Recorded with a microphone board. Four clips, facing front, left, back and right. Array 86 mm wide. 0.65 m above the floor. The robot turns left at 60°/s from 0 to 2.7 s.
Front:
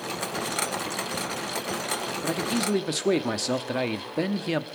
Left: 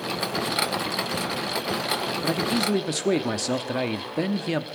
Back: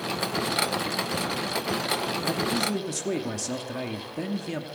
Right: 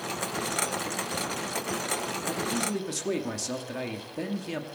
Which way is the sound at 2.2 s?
70° left.